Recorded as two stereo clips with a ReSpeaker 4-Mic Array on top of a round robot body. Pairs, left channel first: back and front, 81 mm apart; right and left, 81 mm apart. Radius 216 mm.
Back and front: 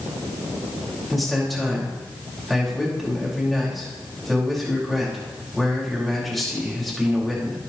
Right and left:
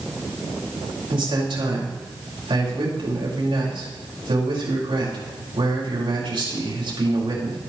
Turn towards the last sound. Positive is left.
turn(degrees=90)